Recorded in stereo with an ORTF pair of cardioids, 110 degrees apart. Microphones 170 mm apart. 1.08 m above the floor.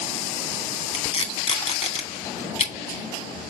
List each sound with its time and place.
0.9 s tape being pulled: 40° left, 2.5 m